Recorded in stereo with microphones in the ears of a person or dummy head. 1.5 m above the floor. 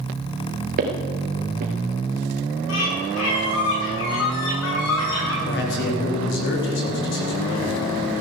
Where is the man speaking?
60° left (ahead or behind), 4 m.